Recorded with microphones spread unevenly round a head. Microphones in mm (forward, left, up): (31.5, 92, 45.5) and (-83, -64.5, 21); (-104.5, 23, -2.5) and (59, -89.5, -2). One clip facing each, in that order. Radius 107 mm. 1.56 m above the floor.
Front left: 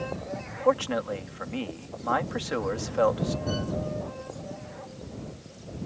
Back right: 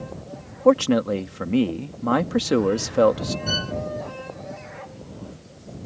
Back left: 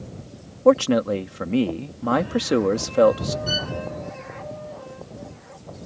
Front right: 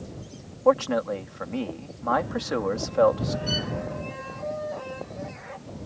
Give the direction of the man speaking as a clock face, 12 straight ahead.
6 o'clock.